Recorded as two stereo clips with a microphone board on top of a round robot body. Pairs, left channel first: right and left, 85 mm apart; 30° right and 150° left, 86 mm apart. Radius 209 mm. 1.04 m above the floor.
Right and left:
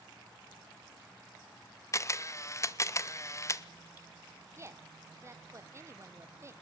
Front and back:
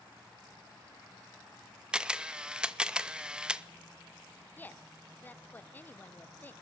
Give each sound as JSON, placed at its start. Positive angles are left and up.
{"t": 1.9, "sound": "a camera shutter", "azimuth_deg": -135, "distance_m": 1.0}
{"t": 4.6, "sound": "a woman speaking", "azimuth_deg": 35, "distance_m": 1.2}